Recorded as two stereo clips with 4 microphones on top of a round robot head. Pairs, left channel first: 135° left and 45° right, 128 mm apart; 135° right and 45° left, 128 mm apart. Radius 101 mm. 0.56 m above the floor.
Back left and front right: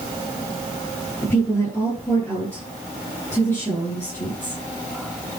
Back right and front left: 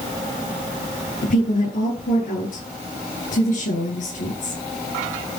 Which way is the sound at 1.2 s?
150° right.